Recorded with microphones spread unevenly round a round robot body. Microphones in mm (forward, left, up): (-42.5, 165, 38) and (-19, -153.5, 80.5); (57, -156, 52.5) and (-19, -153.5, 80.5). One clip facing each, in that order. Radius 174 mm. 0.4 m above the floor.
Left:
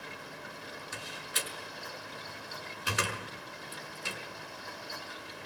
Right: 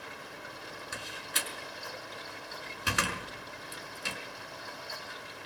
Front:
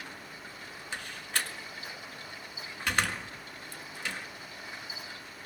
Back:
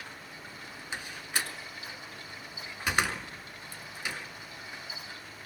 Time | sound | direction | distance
0.9 | a door slam | 105° right | 5 m